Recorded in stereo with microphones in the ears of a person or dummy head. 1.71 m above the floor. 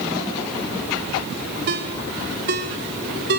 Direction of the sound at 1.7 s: 40° right (ahead or behind).